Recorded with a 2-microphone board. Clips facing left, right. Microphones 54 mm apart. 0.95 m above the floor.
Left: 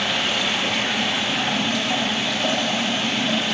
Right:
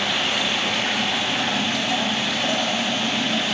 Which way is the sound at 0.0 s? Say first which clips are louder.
Even; centre (ahead or behind).